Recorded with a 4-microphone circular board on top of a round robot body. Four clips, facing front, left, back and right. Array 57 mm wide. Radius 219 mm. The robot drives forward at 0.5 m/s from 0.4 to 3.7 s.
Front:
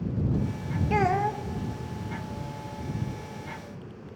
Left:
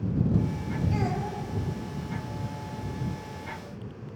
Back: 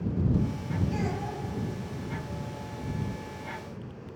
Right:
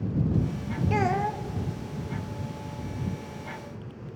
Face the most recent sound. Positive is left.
turn(degrees=-160)